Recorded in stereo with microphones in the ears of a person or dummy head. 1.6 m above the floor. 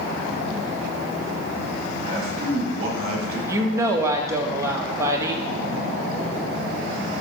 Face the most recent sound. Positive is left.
turn(degrees=-20)  # may be behind; listen again after turning